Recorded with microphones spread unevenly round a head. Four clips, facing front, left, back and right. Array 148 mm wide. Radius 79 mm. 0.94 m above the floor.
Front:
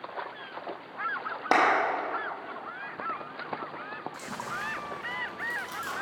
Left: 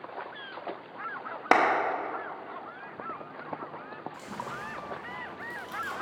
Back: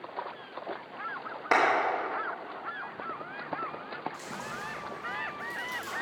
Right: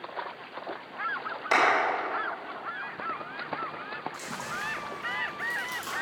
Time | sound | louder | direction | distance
1.5 | a clap | left 1 dB, front 2 dB | 70° left | 1.1 m
4.1 | chewing | right 2 dB, front 3 dB | 20° right | 2.5 m